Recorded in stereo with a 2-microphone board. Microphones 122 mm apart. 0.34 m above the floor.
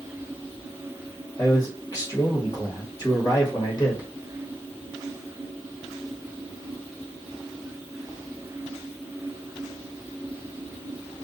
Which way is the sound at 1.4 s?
30° left (ahead or behind).